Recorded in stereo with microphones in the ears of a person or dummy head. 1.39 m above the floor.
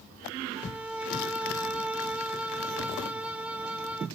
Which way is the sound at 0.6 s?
5° right (ahead or behind).